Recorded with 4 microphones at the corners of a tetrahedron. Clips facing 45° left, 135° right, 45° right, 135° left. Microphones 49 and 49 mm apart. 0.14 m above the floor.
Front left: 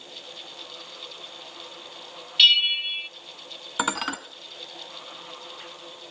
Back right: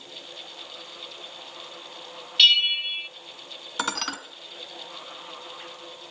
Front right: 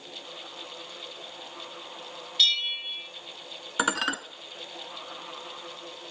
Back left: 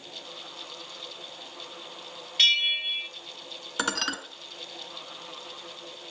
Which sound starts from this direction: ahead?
Dishes clattering, at 3.8 s.